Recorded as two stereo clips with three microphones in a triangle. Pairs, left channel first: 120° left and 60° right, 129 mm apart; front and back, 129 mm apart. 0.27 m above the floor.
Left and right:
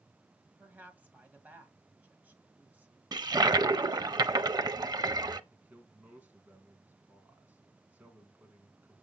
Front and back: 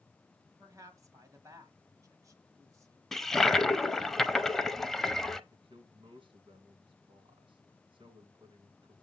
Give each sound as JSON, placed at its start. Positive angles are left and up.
{"t": 0.6, "sound": "a woman speaking", "azimuth_deg": -130, "distance_m": 1.8}
{"t": 3.1, "sound": "a toilet flushing", "azimuth_deg": -85, "distance_m": 0.5}
{"t": 5.5, "sound": "a man speaking", "azimuth_deg": -135, "distance_m": 3.0}